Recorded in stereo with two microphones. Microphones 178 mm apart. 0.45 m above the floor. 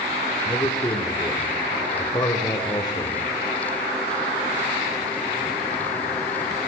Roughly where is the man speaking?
Left.